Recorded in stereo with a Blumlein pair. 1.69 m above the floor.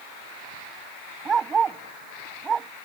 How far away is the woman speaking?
I don't hear a woman speaking.